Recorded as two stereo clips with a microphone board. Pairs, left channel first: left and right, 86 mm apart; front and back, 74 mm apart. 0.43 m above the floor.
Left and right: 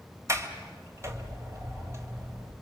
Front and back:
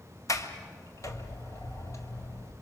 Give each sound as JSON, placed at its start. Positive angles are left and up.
{"t": 0.3, "sound": "a sliding door", "azimuth_deg": -40, "distance_m": 1.8}